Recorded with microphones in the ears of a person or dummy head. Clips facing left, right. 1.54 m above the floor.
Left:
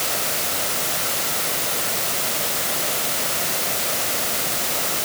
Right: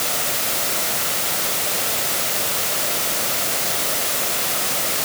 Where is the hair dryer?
I don't hear a hair dryer.